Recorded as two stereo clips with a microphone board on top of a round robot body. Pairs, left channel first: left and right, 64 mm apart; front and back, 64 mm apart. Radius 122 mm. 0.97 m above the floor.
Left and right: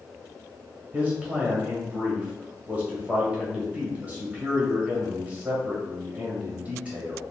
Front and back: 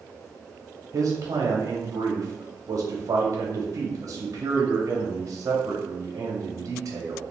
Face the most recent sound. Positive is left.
turn(degrees=-160)